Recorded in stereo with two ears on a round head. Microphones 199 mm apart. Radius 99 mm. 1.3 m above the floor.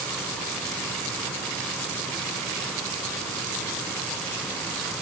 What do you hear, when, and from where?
Only background noise.